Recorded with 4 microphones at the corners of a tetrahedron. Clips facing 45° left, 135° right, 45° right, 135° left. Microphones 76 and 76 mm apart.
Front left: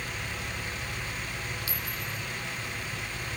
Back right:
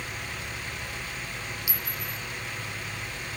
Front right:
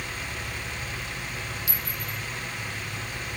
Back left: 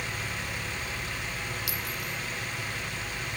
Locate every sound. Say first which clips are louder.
1.7 s a clink: even, even; 150° left, 0.9 m